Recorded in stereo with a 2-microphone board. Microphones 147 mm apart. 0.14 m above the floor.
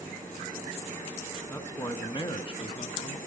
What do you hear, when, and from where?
1.5 s a man speaking: 20° left (ahead or behind), 1.1 m; by 3.2 s 40° left (ahead or behind), 1.8 m